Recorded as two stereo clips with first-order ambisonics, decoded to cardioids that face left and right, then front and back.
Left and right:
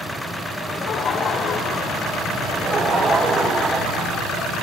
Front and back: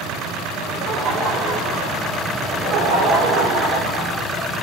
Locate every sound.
0.7 s laughter: 145° left, 2.5 m; by 2.3 s 150° left, 4.5 m
2.4 s laughter: 155° right, 3.5 m